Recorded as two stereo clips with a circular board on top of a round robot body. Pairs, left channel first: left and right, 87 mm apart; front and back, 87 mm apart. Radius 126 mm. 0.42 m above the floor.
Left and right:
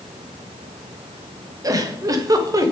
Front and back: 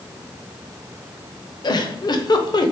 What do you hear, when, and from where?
1.6 s a giggle: 40° right, 1.1 m